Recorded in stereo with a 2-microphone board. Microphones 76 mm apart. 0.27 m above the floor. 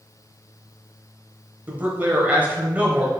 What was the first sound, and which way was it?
A man speaking, 20° right (ahead or behind).